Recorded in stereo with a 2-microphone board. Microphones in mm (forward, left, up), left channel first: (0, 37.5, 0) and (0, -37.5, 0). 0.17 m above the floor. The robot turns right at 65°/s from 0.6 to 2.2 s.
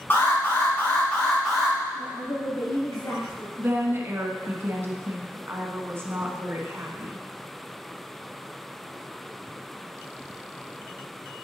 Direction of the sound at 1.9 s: 65° left (ahead or behind).